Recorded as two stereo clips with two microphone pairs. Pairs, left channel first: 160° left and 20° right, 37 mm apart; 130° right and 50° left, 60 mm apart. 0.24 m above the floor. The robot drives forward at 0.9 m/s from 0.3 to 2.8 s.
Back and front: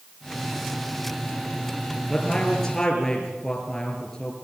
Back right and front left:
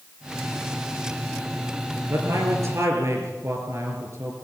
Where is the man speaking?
70° left, 3.5 m; by 4.3 s 80° left, 3.5 m.